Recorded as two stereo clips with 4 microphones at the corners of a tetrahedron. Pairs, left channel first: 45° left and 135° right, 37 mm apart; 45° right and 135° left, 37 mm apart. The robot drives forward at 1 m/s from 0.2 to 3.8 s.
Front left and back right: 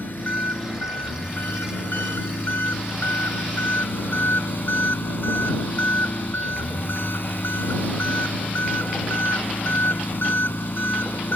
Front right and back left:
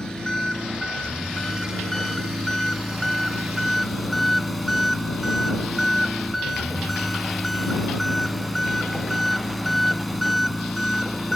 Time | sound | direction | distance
0.0 | an engine running | 25° left | ?